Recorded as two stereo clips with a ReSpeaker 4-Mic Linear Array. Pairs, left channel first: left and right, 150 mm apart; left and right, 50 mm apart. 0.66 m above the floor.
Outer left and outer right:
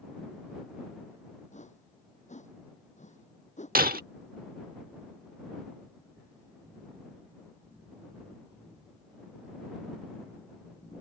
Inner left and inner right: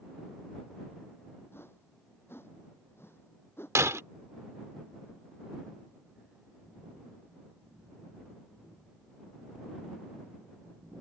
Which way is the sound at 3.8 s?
80° right.